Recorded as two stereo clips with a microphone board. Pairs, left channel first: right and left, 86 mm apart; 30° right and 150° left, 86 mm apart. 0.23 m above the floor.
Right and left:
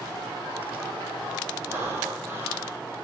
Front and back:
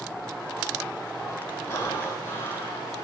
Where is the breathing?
25° left, 4.5 m.